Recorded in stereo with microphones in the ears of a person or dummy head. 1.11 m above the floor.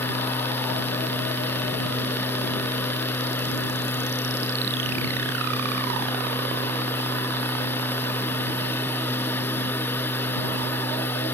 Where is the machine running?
10° left (ahead or behind).